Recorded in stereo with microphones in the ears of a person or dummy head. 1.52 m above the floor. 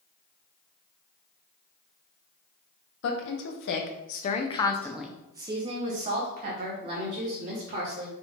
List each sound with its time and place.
3.0 s a woman speaking: 80° left, 1.1 m; by 8.1 s 55° right (ahead or behind), 2.0 m